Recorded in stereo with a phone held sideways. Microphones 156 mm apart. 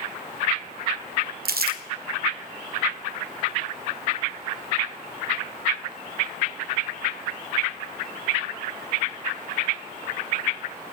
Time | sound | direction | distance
1.4 | crumpling | 80° right | 0.9 m